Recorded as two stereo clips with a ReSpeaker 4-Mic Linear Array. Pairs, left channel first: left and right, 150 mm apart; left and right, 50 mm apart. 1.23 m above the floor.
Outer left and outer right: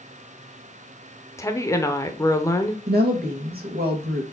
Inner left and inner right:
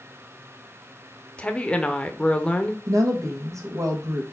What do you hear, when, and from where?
1.4 s a woman speaking: 20° left (ahead or behind), 0.8 m
2.9 s a woman speaking: 80° right, 1.4 m